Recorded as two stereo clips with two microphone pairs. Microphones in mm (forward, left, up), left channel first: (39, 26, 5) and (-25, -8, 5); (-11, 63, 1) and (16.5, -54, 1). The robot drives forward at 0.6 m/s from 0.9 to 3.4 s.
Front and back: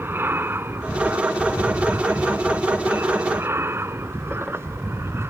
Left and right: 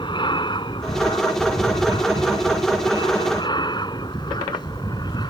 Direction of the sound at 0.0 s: 150° left.